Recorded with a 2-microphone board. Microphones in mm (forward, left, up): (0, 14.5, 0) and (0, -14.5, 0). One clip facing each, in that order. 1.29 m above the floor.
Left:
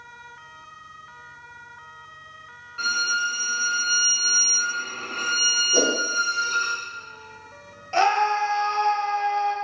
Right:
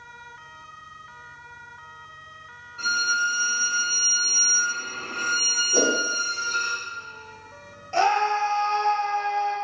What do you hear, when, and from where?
2.8 s a violin: 50° left (ahead or behind), 0.8 m
5.7 s a whoosh: 10° left (ahead or behind), 0.7 m
7.9 s a scream: 30° left (ahead or behind), 0.9 m